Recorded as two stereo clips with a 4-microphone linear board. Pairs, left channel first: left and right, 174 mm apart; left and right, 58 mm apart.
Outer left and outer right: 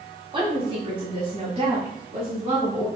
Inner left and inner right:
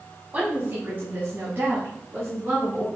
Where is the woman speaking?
30° right (ahead or behind), 1.5 m.